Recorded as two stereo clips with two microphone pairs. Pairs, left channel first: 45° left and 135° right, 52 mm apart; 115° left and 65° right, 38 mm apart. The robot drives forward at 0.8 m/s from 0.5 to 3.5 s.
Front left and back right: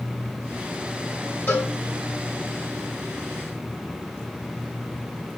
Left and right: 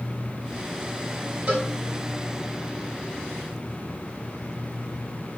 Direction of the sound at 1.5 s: 5° right.